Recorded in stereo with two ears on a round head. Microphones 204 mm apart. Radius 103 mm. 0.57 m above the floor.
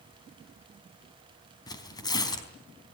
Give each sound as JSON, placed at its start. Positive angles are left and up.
{"t": 1.7, "sound": "tearing paper", "side_deg": 20, "distance_m": 4.0}